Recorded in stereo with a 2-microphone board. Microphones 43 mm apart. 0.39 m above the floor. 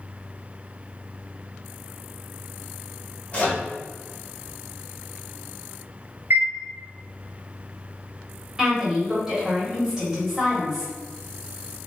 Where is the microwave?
30° left (ahead or behind), 1.2 m.